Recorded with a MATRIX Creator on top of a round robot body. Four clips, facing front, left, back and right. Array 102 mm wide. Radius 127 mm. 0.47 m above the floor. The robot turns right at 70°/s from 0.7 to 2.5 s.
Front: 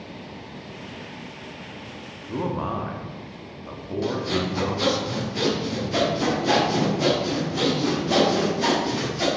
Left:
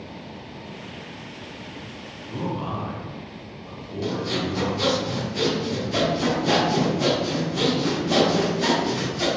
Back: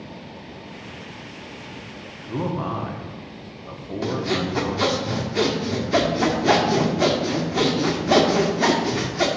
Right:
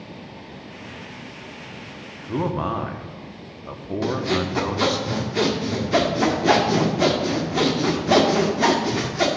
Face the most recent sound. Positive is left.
turn(degrees=-130)